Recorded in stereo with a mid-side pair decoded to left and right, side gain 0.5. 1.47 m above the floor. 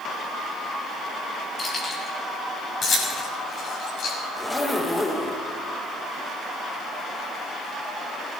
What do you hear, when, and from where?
1.6 s keys jangling: 35° left, 7 m; by 4.2 s 55° left, 7 m
4.3 s a zipper: 15° left, 1.7 m